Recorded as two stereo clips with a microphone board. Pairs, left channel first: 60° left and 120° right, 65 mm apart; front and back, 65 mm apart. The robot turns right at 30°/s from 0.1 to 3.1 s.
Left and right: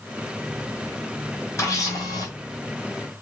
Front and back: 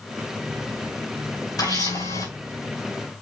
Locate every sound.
1.6 s a camera shutter: 15° left, 5 m; by 2.3 s 35° left, 5 m